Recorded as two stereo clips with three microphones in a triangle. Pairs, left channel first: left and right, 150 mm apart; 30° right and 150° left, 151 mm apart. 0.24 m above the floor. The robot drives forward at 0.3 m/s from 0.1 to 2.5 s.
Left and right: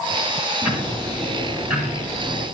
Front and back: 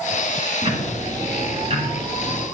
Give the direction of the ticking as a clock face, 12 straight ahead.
6 o'clock.